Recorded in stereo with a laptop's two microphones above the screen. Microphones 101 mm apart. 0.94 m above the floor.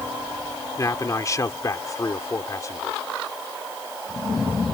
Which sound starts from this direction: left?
A man speaking, at 0.8 s.